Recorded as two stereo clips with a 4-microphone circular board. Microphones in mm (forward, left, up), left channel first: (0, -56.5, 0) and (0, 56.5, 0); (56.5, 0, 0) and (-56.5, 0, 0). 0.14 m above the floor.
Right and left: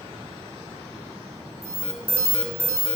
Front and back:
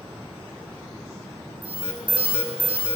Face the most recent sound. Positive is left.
turn(degrees=120)